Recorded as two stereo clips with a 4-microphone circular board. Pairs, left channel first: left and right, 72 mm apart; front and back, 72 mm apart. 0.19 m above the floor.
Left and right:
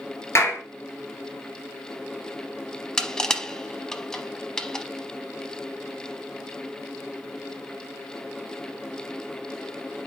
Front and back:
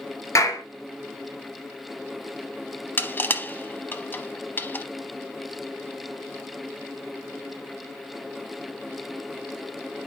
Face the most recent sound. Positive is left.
turn(degrees=20)